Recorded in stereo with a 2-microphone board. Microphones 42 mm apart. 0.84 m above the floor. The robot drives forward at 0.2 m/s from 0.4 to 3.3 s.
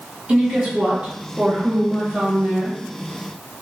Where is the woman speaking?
30° right (ahead or behind), 1.4 m; by 2.8 s 40° right (ahead or behind), 1.2 m.